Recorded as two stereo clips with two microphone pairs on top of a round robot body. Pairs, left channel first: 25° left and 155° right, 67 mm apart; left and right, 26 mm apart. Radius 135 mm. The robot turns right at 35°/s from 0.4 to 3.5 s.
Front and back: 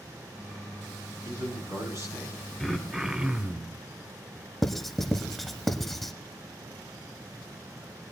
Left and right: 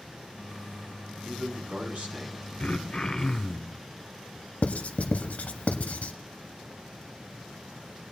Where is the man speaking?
140° right, 5 m; by 2.4 s 105° right, 5 m.